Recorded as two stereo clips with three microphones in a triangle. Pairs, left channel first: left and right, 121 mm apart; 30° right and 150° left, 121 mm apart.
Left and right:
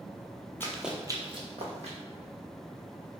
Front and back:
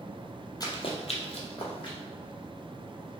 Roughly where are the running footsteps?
Ahead.